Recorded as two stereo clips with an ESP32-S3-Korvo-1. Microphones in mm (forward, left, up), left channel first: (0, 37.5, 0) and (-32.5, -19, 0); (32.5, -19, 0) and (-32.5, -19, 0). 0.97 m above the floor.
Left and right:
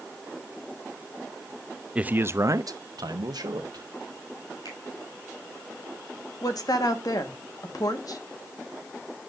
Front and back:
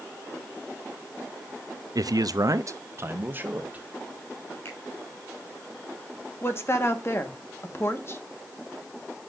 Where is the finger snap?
50° left, 5 m.